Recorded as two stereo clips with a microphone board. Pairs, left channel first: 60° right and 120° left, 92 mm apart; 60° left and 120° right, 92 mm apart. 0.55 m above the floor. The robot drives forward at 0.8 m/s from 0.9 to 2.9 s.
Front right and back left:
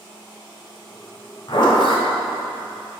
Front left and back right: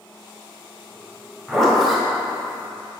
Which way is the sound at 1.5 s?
25° right.